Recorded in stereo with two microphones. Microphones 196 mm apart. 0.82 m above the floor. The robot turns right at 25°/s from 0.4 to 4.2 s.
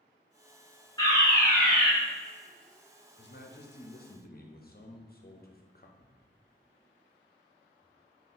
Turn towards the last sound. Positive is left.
turn(degrees=-5)  # may be behind; listen again after turning